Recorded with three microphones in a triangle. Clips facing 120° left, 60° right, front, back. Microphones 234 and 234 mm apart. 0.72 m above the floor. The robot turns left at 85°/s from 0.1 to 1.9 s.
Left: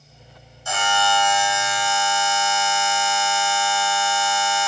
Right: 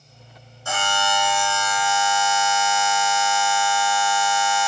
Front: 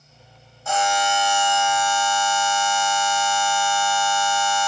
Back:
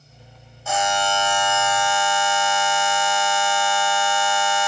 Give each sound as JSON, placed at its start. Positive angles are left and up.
{"t": 0.7, "sound": "a buzzer", "azimuth_deg": -90, "distance_m": 2.5}